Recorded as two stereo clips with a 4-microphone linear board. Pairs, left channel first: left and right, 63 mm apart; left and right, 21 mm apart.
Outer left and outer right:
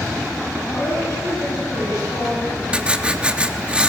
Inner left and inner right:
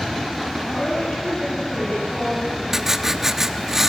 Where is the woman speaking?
75° left (ahead or behind), 8.5 m.